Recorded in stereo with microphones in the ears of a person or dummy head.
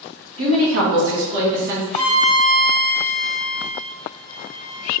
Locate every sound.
0.4 s a woman speaking: 65° right (ahead or behind), 1.3 m
1.9 s a violin: 5° left (ahead or behind), 1.3 m